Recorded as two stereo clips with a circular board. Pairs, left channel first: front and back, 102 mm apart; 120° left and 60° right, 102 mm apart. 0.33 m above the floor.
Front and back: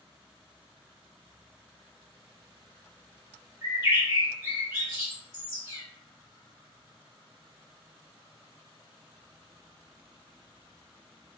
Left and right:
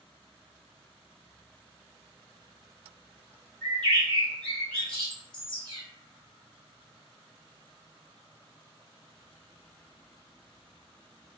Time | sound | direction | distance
3.6 | a bird | 165° right | 1.4 m